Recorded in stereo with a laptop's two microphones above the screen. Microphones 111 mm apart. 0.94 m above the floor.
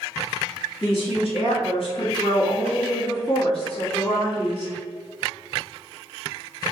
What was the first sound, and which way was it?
A woman speaking, 55° left (ahead or behind).